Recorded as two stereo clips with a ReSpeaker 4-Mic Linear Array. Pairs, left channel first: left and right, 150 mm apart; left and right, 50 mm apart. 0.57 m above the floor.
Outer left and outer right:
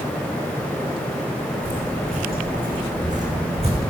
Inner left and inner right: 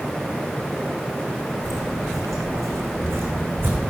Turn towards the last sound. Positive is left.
turn(degrees=-40)  # may be behind; listen again after turning